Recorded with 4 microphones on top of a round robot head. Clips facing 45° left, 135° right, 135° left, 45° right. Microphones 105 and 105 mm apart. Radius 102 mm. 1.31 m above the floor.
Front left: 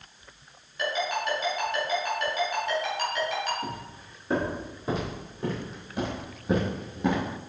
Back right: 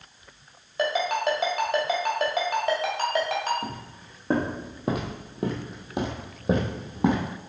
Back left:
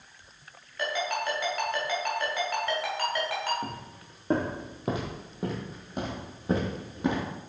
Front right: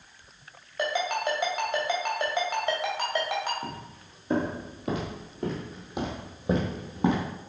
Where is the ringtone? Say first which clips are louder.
Back right 4 dB, front right 2 dB; 115° right, 2.5 m.